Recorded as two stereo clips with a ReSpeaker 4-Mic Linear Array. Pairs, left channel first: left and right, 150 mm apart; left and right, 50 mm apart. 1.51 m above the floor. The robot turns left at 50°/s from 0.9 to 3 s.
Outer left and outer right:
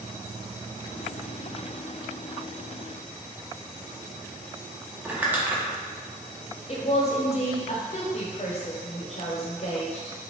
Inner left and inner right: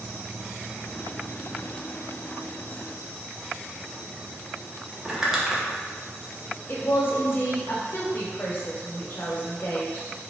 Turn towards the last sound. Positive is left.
turn(degrees=45)  # may be behind; listen again after turning